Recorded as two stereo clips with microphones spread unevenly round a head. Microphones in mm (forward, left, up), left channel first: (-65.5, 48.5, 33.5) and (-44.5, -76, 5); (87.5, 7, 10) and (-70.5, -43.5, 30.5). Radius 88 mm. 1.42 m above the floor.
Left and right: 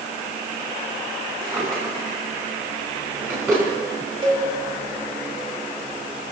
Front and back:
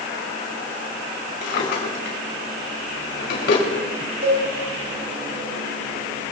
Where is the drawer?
Straight ahead, 6 m.